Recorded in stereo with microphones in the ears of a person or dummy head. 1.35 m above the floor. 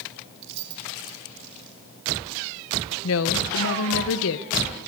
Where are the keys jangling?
65° right (ahead or behind), 2.5 m.